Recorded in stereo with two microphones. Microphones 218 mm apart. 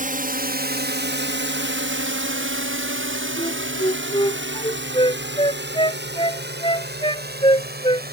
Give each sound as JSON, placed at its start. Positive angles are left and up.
{"t": 0.0, "sound": "a drone", "side_deg": -40}
{"t": 3.4, "sound": "a flute", "side_deg": 25}